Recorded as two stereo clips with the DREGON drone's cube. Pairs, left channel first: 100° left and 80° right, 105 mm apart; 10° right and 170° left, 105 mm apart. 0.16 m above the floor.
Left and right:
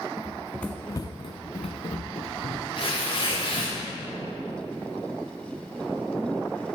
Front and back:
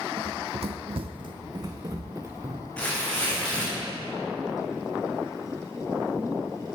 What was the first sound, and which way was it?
Running footsteps, 155° right.